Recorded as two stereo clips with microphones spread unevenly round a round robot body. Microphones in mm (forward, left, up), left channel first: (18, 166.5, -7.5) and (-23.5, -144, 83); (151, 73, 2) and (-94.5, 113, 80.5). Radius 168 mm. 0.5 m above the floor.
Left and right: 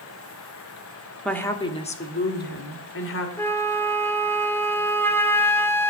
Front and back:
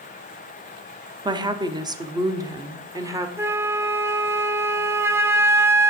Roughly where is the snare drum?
No snare drum in this recording.